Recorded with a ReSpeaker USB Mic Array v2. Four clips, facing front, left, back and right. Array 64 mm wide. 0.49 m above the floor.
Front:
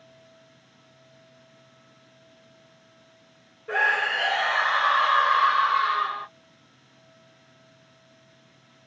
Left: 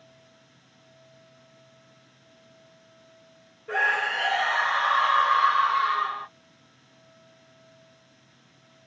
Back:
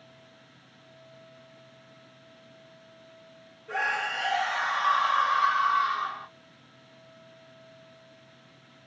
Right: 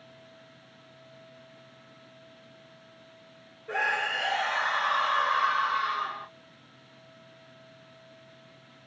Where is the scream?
20° left, 0.9 m.